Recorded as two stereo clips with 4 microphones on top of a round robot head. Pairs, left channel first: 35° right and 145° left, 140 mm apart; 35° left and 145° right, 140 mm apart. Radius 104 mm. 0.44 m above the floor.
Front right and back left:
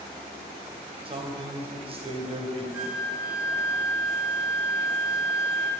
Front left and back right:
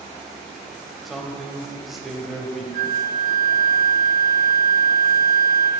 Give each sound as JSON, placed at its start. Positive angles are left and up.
{"t": 1.1, "sound": "a man speaking", "azimuth_deg": 125, "distance_m": 1.1}
{"t": 2.7, "sound": "a flute", "azimuth_deg": -130, "distance_m": 0.6}